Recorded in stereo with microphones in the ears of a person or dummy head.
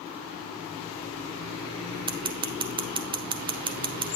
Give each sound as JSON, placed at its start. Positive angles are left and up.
{"t": 2.1, "sound": "scissors", "side_deg": -20, "distance_m": 0.6}